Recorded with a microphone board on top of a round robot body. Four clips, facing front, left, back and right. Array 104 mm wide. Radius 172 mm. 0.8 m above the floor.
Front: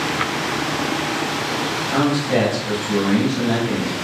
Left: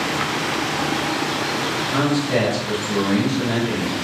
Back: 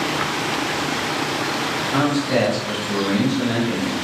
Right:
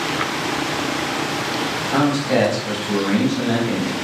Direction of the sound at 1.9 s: 70° right.